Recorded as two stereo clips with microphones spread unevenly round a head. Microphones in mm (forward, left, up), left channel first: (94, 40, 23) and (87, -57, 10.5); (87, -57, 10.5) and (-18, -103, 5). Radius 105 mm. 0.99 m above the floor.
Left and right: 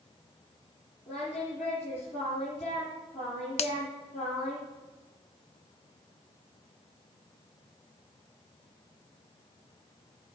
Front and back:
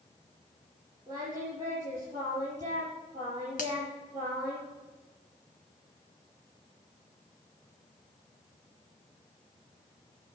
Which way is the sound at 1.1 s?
125° left.